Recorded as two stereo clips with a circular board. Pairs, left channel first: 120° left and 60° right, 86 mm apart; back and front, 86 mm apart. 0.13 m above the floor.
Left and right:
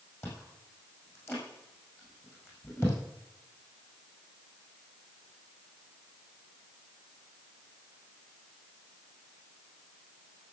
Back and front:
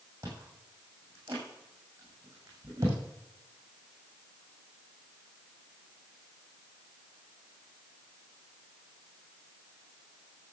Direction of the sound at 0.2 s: 60° left.